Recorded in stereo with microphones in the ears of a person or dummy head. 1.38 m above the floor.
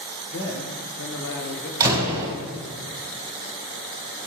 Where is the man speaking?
60° left (ahead or behind), 1.3 m; by 1.7 s 50° left (ahead or behind), 1.3 m.